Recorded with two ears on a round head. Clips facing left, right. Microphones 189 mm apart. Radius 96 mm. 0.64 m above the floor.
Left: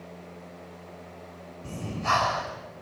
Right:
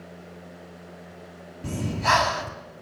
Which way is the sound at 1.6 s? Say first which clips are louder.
Right 5 dB; 70° right (ahead or behind).